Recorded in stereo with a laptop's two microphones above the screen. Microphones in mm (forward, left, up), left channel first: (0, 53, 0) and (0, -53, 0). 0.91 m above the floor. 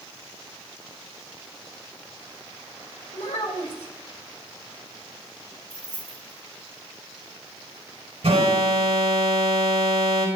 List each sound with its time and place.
3.1 s a child speaking: 85° left, 2.5 m
5.7 s keys jangling: 75° left (ahead or behind), 3 m
8.2 s an alarm: 70° right (ahead or behind), 3.5 m